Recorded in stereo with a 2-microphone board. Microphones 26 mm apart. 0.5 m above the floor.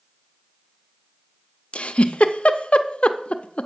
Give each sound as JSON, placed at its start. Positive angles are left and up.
{"t": 1.7, "sound": "a giggle", "side_deg": 50, "distance_m": 0.5}